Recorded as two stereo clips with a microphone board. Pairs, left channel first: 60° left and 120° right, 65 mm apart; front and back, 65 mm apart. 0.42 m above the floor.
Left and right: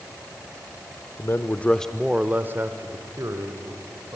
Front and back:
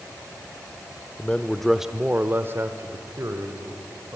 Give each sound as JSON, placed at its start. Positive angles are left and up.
{"t": 1.2, "sound": "a man speaking", "azimuth_deg": 60, "distance_m": 1.0}